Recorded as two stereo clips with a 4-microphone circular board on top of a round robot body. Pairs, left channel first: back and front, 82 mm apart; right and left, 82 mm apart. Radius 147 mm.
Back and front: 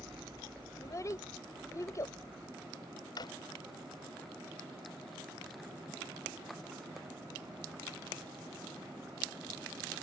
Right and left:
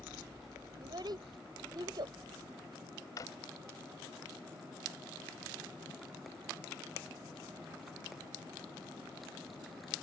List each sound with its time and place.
0.8 s a child speaking: 125° left
3.2 s a drawer: 140° right